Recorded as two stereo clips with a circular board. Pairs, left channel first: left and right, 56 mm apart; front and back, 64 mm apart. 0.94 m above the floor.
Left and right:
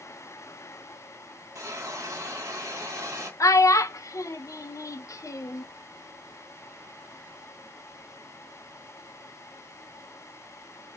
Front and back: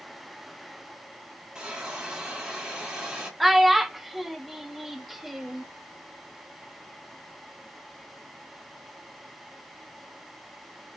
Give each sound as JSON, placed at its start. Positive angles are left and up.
{"t": 1.6, "sound": "a hiss", "azimuth_deg": -105, "distance_m": 1.5}
{"t": 3.4, "sound": "a child speaking", "azimuth_deg": 90, "distance_m": 0.5}